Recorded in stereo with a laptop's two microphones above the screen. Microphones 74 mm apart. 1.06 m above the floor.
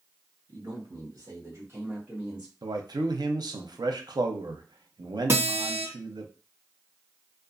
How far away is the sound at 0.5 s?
About 1.1 m.